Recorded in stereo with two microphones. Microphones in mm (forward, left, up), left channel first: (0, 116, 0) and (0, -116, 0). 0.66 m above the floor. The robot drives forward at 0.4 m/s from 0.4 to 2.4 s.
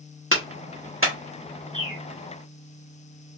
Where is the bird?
65° right (ahead or behind), 3.5 m; by 2.0 s 60° right (ahead or behind), 3.5 m.